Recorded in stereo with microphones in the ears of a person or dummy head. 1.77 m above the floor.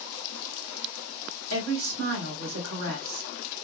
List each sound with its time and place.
1.5 s a woman speaking: 85° right, 2.5 m